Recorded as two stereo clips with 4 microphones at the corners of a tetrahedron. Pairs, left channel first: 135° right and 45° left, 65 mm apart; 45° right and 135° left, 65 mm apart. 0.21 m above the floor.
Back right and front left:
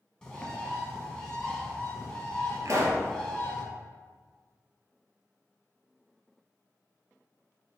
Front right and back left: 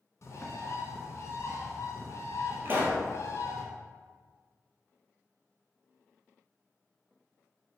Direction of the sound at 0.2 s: 60° right.